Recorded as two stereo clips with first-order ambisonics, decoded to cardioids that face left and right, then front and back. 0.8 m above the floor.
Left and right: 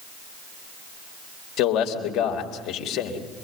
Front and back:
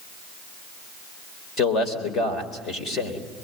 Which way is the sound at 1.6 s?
55° left.